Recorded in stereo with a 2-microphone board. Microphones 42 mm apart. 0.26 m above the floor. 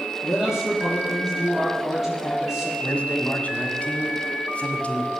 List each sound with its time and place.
0.2 s a man speaking: 15° right (ahead or behind), 6.5 m
2.8 s a man speaking: 35° left (ahead or behind), 1.7 m